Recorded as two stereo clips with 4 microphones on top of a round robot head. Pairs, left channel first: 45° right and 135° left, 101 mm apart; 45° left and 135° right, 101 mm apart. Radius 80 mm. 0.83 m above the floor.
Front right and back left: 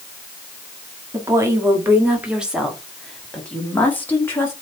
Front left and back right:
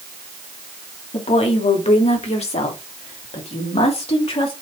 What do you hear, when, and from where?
1.1 s a woman speaking: 75° left, 2 m; by 4.5 s 20° left, 2.5 m